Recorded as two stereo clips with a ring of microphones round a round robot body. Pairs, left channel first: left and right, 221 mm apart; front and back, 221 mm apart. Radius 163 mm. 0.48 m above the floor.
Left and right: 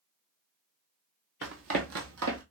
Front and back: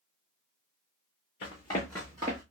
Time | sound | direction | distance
1.4 | running footsteps | 60° right | 1.1 m